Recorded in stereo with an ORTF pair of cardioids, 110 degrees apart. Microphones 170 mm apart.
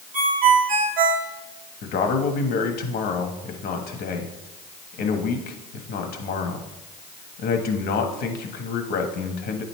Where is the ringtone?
55° right, 1.3 m.